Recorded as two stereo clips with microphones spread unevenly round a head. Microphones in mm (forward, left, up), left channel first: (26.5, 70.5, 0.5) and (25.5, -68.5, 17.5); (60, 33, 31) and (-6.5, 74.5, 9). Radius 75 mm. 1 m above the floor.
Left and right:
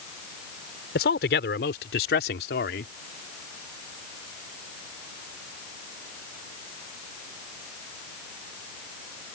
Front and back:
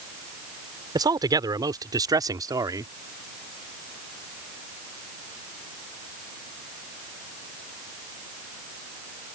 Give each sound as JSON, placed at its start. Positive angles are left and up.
{"t": 0.9, "sound": "a man speaking", "azimuth_deg": 110}